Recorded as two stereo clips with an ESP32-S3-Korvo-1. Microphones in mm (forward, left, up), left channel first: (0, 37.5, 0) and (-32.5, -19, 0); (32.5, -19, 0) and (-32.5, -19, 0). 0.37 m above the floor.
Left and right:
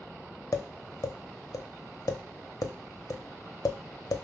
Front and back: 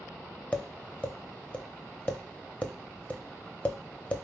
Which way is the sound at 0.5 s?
65° left.